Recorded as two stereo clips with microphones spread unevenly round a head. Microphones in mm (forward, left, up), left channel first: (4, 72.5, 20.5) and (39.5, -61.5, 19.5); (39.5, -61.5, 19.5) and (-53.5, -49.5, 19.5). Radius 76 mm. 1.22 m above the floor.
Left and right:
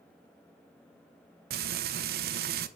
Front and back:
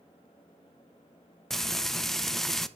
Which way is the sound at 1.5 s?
95° right.